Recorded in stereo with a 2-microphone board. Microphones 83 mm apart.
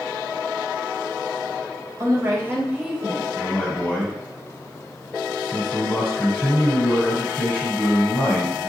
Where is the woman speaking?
40° right (ahead or behind), 1.2 m; by 3.3 s 10° right (ahead or behind), 1.4 m.